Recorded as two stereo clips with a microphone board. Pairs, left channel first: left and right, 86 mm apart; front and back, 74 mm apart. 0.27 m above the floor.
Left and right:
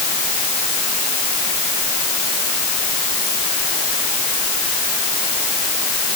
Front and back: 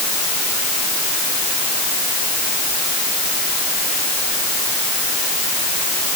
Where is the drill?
No drill in this recording.